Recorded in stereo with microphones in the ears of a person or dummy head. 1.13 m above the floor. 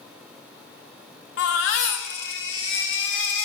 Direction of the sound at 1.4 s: 75° left (ahead or behind).